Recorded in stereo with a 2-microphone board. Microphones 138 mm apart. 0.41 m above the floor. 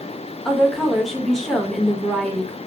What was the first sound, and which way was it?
A woman speaking, centre (ahead or behind).